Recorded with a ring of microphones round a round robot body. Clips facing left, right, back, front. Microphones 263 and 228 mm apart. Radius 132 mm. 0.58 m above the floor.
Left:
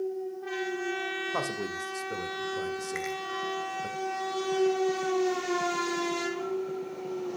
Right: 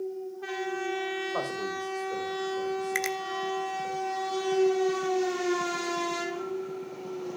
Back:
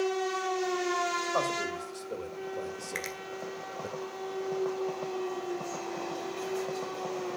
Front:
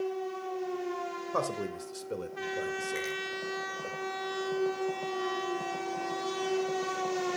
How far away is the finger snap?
About 1.3 m.